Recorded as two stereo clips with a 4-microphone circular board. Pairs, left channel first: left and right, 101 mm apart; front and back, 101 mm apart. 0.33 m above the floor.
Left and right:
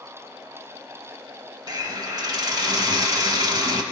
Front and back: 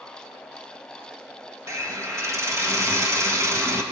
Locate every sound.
1.7 s a hiss: 125° right, 1.2 m